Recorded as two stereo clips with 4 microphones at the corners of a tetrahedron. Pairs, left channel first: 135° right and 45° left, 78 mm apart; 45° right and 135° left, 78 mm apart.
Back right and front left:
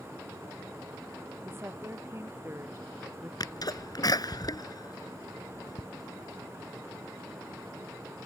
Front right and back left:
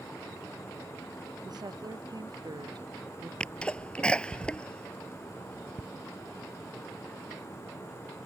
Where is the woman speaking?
100° left; by 3.3 s 105° left.